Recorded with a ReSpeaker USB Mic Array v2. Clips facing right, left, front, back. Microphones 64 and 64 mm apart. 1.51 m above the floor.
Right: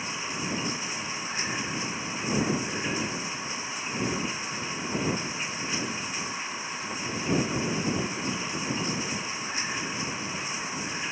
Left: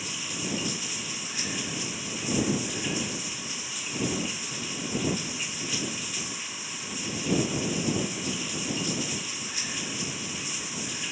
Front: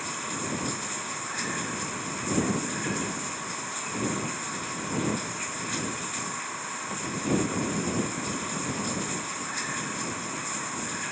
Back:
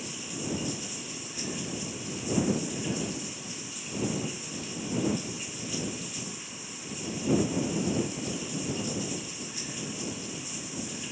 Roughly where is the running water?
Ahead right.